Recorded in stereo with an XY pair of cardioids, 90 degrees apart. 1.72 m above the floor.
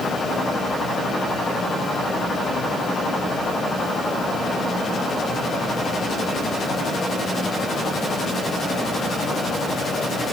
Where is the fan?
50° left, 4.5 m.